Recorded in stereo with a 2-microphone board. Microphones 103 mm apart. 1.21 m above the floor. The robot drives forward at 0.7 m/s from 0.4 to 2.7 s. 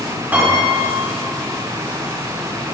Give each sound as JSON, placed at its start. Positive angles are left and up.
{"t": 0.3, "sound": "a piano", "side_deg": -15, "distance_m": 4.0}